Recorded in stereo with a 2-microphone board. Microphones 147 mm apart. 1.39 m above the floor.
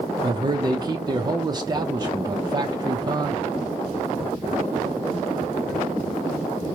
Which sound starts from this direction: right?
A man speaking, at 0.2 s.